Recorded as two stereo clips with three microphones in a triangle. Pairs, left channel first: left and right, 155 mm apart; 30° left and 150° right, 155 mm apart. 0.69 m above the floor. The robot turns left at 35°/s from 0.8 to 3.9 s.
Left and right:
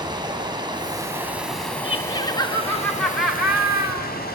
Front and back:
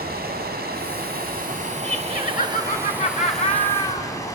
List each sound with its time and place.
0.0 s running water: 155° right, 3 m; by 4.4 s 100° left, 3 m
1.8 s laughter: 45° left, 2.5 m; by 4.1 s 25° right, 2.5 m